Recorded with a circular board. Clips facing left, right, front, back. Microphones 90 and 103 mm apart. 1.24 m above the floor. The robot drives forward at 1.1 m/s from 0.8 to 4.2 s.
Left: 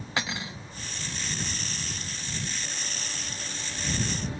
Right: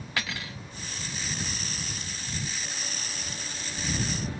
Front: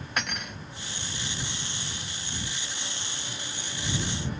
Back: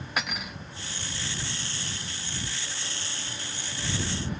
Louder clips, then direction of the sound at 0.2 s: Left 2 dB, even; 100° left.